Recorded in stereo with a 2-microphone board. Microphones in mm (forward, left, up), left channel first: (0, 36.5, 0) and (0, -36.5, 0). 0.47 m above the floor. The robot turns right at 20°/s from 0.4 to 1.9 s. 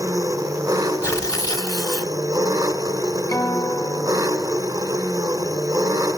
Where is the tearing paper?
50° left (ahead or behind), 1.0 m; by 2.1 s 65° left (ahead or behind), 1.0 m.